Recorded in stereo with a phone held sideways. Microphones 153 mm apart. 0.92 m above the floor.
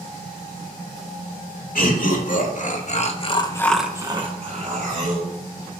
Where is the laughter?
65° left (ahead or behind), 2.5 m; by 5.3 s 60° right (ahead or behind), 1.9 m.